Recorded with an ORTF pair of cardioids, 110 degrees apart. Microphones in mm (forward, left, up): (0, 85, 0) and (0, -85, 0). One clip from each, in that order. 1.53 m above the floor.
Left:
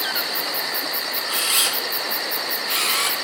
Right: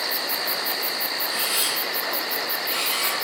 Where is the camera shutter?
40° left, 0.8 m.